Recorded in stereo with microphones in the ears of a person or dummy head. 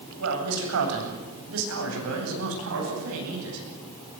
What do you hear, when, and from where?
0.2 s a man speaking: 80° right, 8.5 m; by 3.6 s 90° right, 11.5 m